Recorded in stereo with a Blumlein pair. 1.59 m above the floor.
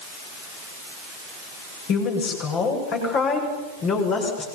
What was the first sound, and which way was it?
A woman speaking, 35° left.